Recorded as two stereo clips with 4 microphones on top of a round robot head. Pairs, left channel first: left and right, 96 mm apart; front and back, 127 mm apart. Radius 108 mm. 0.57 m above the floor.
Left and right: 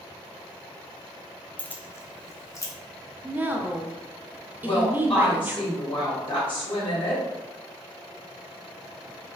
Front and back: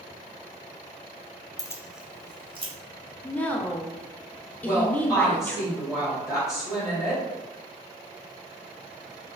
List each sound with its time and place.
1.6 s keys jangling: 30° left, 0.6 m; by 2.7 s 145° left, 1.1 m
3.2 s a woman speaking: 60° right, 0.6 m
4.6 s a woman speaking: 90° left, 2.0 m